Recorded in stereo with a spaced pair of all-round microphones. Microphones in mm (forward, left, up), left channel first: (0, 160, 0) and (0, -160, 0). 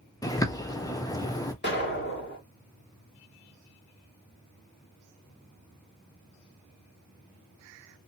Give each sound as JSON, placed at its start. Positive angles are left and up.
{"t": 0.2, "sound": "a bird", "side_deg": 10, "distance_m": 0.6}
{"t": 1.6, "sound": "an explosion", "side_deg": 30, "distance_m": 1.3}